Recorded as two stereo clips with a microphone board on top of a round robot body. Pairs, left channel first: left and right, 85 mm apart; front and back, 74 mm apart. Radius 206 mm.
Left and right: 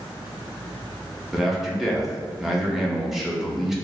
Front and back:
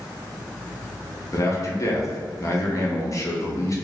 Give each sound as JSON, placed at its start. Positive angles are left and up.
{"t": 1.3, "sound": "a man speaking", "azimuth_deg": -5, "distance_m": 1.3}